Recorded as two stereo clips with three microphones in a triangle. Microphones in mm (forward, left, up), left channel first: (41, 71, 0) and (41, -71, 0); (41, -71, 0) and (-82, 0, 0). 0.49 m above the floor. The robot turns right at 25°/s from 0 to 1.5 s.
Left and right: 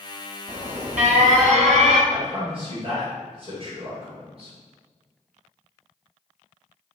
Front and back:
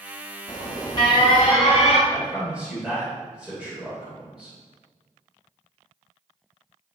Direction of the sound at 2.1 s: 125° right.